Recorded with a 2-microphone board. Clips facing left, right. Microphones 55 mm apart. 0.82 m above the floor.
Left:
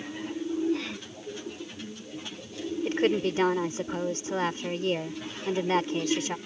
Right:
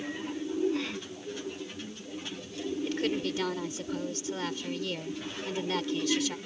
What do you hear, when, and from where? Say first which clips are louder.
2.9 s a woman speaking: left 7 dB; 35° left (ahead or behind)